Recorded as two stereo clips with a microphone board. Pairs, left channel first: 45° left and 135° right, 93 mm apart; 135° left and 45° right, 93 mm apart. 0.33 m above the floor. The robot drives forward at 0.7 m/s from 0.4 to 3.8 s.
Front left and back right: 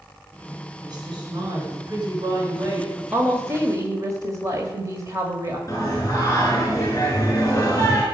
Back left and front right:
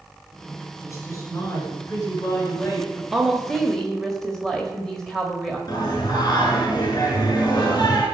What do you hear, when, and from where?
0.8 s a woman speaking: 170° right, 3.5 m; by 3.0 s 175° right, 5 m
3.1 s a woman speaking: 115° right, 1.3 m; by 5.6 s 145° right, 1.4 m
5.7 s singing: 100° left, 5.5 m